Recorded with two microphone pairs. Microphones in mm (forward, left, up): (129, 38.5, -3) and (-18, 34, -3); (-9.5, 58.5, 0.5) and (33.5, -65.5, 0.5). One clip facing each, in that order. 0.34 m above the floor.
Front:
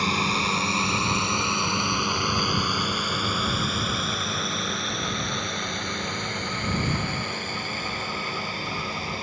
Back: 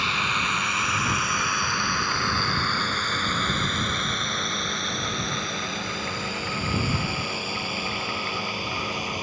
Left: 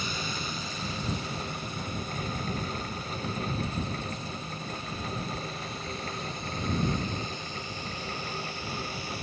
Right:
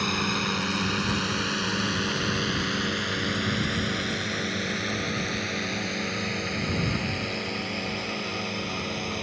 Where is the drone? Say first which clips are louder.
Front 4 dB, right 7 dB; 50° right; by 9.2 s 100° right.